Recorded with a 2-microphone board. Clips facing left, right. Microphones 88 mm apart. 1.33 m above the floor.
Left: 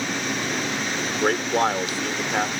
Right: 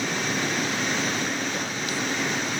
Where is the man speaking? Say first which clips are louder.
Left 6 dB; 85° left.